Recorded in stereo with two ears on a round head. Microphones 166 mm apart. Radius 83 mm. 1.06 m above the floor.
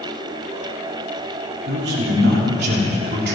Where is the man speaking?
60° right (ahead or behind), 3.5 m.